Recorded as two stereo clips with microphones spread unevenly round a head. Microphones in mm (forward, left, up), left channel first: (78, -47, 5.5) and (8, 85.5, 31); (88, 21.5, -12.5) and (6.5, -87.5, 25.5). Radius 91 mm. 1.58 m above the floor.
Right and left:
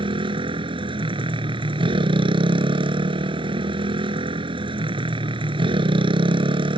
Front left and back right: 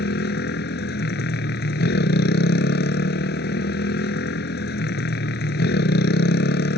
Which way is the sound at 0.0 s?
60° left.